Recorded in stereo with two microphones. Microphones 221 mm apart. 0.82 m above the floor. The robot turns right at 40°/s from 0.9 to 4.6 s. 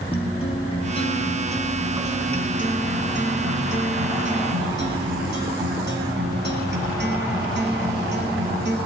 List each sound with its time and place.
0.1 s a guitar: 155° left, 2.0 m; by 8.8 s 60° right, 2.0 m